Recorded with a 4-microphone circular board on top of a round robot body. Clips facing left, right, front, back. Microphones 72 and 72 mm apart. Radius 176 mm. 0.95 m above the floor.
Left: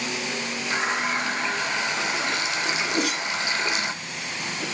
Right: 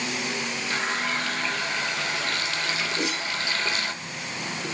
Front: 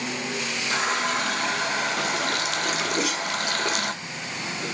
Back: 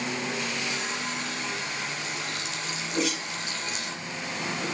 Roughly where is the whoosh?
Left.